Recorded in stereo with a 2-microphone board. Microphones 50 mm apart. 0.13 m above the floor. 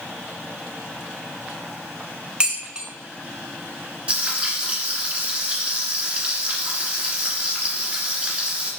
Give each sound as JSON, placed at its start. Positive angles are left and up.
{"t": 2.4, "sound": "dishes clattering", "side_deg": -20, "distance_m": 0.7}
{"t": 4.1, "sound": "frying", "side_deg": -25, "distance_m": 1.9}